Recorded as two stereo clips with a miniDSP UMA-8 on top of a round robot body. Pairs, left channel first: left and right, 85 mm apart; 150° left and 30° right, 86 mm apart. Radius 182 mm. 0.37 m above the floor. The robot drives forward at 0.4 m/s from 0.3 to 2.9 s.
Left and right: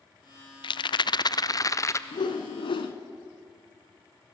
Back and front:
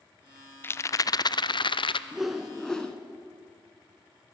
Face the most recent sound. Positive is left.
turn(degrees=70)